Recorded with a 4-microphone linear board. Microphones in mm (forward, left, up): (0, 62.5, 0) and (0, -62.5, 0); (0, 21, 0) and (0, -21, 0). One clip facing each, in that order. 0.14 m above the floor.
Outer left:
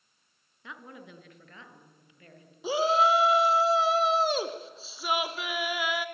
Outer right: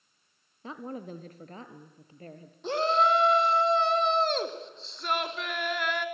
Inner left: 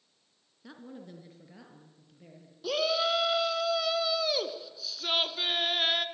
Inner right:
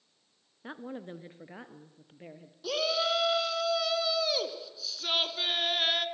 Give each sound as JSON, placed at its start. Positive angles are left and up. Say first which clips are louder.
{"t": 0.6, "sound": "a woman speaking", "louder": "outer right 8 dB, inner right 6 dB", "side_deg": -35, "distance_m": 1.3}
{"t": 2.6, "sound": "a shout", "louder": "outer left 1 dB, inner left 1 dB", "side_deg": 5, "distance_m": 1.4}